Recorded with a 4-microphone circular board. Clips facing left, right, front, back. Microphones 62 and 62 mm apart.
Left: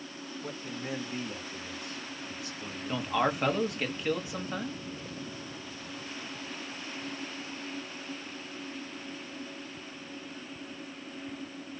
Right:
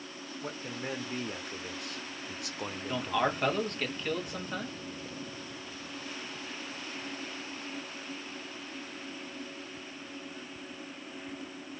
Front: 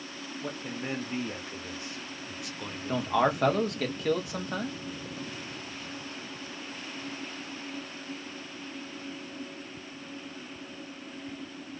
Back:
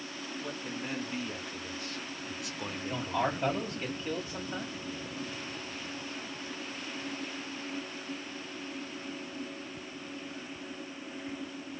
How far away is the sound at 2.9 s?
About 1.0 m.